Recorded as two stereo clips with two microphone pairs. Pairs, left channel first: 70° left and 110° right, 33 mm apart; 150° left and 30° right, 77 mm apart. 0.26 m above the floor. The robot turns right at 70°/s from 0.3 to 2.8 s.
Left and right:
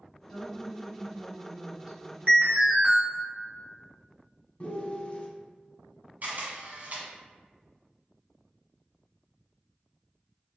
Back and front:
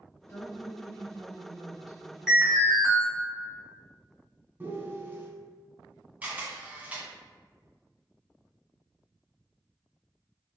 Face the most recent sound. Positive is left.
turn(degrees=-95)